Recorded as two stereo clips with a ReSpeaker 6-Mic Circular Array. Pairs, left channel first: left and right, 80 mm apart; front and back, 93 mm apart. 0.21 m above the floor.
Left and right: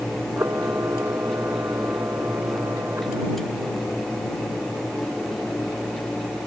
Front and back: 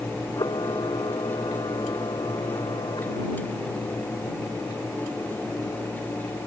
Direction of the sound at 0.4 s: 35° right.